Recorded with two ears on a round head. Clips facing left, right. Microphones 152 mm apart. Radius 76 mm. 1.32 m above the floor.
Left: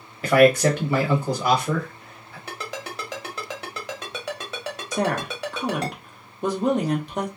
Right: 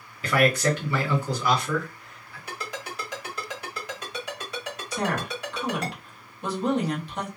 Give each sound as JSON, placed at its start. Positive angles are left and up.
{"t": 0.2, "sound": "a man speaking", "side_deg": 40, "distance_m": 1.5}
{"t": 2.5, "sound": "a ringtone", "side_deg": 55, "distance_m": 1.3}
{"t": 4.9, "sound": "a woman speaking", "side_deg": 40, "distance_m": 1.1}